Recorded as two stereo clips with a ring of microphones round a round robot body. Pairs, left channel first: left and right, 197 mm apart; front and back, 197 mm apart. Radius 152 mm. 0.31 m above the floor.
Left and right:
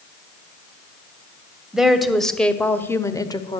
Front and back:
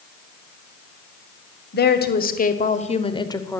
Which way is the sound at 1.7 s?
5° right.